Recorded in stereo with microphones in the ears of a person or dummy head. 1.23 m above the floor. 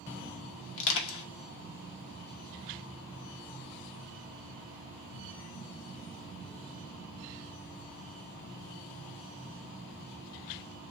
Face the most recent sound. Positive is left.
turn(degrees=75)  # may be behind; listen again after turning